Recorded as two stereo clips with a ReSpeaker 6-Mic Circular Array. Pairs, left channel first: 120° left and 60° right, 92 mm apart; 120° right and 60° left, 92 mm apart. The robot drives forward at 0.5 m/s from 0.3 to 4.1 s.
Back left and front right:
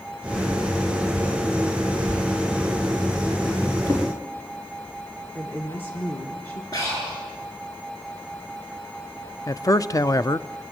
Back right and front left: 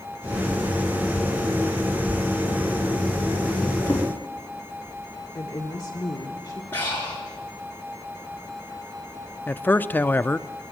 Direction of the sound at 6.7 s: 170° left.